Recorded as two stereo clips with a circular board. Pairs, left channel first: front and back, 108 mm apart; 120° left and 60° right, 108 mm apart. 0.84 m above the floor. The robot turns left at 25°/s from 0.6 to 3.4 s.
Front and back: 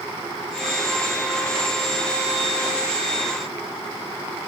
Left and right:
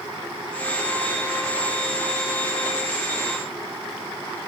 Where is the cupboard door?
No cupboard door in this recording.